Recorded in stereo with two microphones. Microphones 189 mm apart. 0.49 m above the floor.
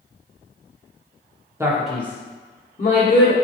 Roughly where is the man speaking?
Centre.